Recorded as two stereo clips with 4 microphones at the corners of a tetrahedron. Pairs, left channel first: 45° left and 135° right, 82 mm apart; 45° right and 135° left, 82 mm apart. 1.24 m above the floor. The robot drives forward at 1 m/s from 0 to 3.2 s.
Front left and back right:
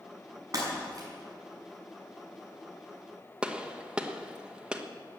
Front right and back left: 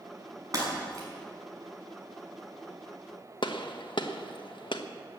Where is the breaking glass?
Straight behind, 5.5 m.